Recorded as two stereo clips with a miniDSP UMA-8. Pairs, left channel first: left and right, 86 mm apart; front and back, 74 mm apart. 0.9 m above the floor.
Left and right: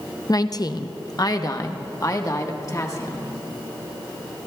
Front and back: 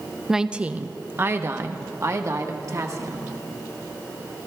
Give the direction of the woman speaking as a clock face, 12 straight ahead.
9 o'clock.